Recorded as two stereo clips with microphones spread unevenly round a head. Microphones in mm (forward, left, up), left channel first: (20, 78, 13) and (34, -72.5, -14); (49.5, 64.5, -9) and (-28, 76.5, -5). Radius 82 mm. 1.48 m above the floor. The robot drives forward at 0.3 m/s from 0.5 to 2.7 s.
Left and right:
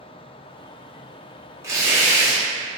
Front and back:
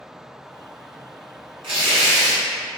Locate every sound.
1.6 s tearing paper: 160° right, 0.6 m; by 2.4 s 165° right, 0.8 m